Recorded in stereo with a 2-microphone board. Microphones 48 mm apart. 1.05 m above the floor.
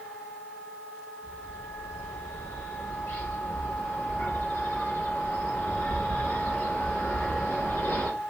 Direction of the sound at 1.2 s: 65° left (ahead or behind).